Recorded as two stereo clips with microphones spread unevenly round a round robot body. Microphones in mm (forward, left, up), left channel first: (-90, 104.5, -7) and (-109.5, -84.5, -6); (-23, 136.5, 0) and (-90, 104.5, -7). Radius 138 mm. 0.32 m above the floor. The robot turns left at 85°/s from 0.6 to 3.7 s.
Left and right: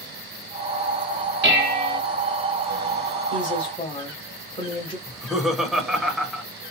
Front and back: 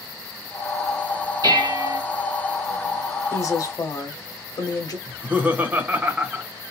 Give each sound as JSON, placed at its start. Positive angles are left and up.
{"t": 1.4, "sound": "dishes clattering", "azimuth_deg": -115, "distance_m": 1.3}
{"t": 3.3, "sound": "a woman speaking", "azimuth_deg": 60, "distance_m": 1.2}
{"t": 5.1, "sound": "laughter", "azimuth_deg": 175, "distance_m": 1.0}